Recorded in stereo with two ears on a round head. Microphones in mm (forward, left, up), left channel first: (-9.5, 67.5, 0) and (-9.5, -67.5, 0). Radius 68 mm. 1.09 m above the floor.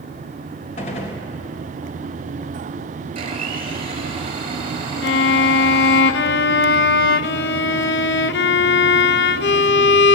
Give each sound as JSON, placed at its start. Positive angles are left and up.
{"t": 0.8, "sound": "a gunshot", "side_deg": 50, "distance_m": 3.0}
{"t": 3.1, "sound": "a blender", "side_deg": -40, "distance_m": 4.5}
{"t": 5.0, "sound": "a violin", "side_deg": 80, "distance_m": 0.6}